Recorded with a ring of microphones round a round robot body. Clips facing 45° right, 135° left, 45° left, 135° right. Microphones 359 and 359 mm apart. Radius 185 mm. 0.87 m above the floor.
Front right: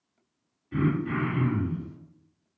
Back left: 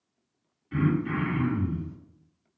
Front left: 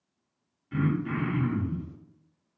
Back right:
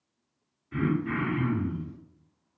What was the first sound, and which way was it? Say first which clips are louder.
Throat clearing: even, back right 1 dB; 80° left.